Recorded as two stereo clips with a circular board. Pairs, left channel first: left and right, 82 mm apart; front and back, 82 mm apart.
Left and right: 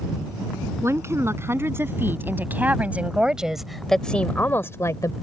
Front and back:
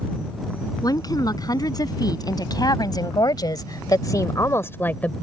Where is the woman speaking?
35° right; by 5.1 s 65° left.